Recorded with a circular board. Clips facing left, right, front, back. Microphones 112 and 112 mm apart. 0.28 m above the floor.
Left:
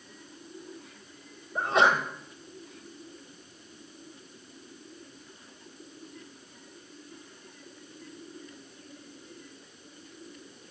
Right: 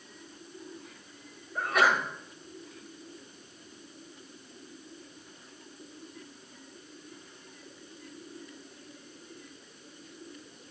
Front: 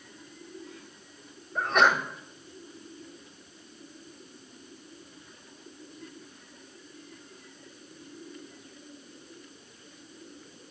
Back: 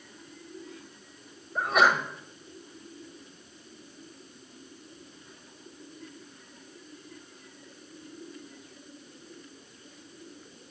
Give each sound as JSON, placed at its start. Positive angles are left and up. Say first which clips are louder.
{"t": 1.6, "sound": "a sneeze", "louder": "left 2 dB, even", "azimuth_deg": 110, "distance_m": 1.2}